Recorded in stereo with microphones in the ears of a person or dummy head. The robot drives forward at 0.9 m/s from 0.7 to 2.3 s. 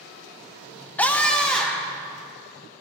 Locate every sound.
1.0 s a scream: 5° left (ahead or behind), 0.8 m